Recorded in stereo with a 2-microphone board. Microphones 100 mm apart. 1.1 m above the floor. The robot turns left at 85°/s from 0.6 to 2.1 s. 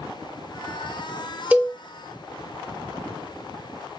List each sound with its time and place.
1.5 s a cowbell: 15° right (ahead or behind), 0.8 m; by 1.8 s centre (ahead or behind), 0.8 m